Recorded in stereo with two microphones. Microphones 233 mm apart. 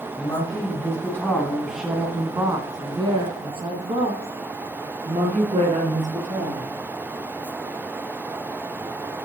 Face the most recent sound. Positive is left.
turn(degrees=-30)  # may be behind; listen again after turning